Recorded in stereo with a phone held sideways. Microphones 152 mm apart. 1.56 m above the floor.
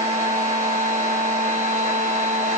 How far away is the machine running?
About 0.8 m.